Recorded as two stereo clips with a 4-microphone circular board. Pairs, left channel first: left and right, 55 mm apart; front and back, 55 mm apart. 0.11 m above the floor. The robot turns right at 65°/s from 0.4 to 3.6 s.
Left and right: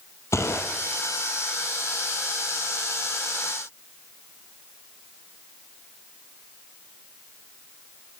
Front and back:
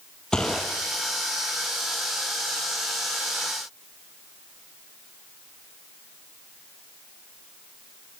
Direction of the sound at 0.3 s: 75° left.